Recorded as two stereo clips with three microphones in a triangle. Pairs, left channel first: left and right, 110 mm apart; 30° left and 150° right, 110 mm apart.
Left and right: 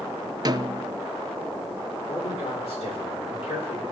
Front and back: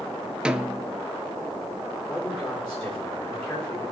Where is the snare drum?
70° right, 0.6 m.